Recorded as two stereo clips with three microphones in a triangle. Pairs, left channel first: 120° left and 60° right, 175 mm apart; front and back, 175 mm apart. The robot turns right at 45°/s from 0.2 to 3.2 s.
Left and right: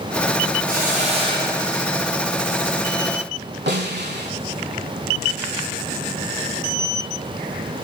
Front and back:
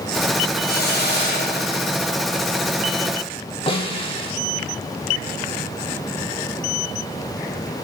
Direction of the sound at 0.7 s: 30° right.